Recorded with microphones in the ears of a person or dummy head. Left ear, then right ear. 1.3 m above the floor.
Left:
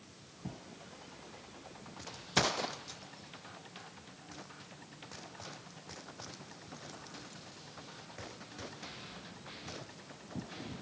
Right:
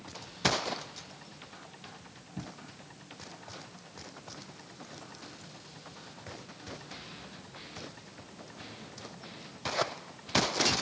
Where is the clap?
I don't hear a clap.